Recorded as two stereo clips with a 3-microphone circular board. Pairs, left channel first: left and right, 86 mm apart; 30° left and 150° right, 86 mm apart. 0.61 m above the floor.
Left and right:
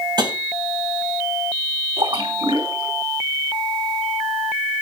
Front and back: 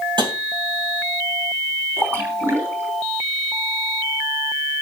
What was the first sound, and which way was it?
Tapping, 125° right.